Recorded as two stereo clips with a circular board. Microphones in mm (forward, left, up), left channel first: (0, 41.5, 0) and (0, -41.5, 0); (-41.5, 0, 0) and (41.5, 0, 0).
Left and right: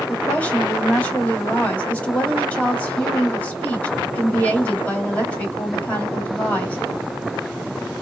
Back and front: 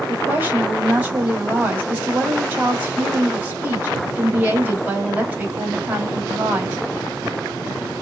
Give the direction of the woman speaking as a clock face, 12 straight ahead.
11 o'clock.